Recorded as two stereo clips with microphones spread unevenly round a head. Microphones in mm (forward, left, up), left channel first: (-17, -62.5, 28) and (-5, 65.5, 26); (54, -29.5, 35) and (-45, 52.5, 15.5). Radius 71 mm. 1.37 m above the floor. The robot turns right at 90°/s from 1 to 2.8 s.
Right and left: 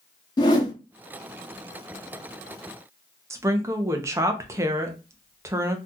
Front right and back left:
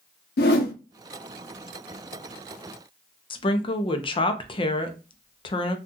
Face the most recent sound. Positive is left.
turn(degrees=15)